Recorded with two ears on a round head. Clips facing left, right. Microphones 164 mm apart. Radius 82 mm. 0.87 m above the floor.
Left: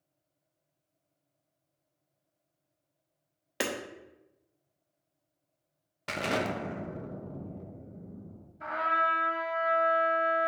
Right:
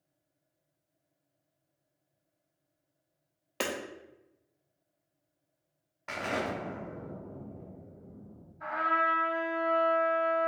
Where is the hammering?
10° left (ahead or behind), 0.7 m.